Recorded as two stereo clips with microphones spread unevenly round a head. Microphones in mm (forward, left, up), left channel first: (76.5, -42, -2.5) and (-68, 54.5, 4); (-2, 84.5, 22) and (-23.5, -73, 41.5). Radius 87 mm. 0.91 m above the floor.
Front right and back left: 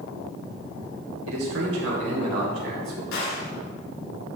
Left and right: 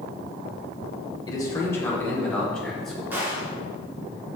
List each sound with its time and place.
1.3 s a man speaking: 150° left, 2.5 m; by 3.0 s 170° left, 3.5 m
3.1 s a gunshot: 20° right, 2.5 m